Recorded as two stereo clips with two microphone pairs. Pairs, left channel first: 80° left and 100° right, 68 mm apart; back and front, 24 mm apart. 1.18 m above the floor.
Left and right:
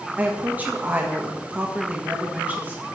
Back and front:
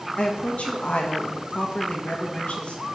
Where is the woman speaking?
160° right, 1.4 m.